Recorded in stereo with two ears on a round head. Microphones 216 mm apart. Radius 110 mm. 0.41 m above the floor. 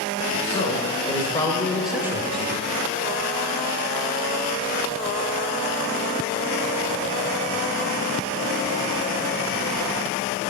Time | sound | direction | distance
0.3 | a man speaking | 30° left (ahead or behind) | 1.7 m